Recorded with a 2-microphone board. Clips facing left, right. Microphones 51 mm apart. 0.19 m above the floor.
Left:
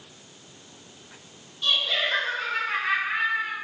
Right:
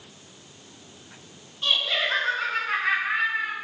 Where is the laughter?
35° right (ahead or behind), 1.4 m; by 3.5 s 60° right (ahead or behind), 3 m.